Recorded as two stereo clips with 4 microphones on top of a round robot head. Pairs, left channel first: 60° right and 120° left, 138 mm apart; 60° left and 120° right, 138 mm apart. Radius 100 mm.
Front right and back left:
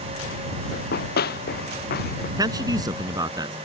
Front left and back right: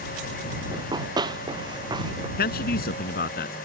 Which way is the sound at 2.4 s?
55° left.